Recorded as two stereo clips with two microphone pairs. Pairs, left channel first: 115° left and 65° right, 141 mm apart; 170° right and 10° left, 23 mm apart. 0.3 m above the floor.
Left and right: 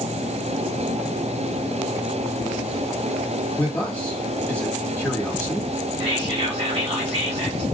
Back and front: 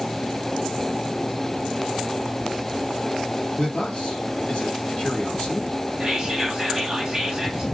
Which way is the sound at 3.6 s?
170° right.